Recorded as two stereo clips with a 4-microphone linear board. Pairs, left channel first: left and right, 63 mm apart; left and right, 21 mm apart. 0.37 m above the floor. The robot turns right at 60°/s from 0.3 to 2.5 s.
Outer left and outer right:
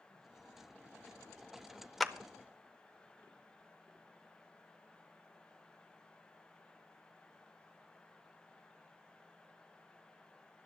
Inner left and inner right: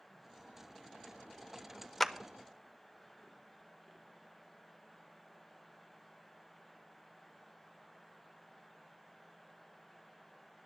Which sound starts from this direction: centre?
A clap, at 2.0 s.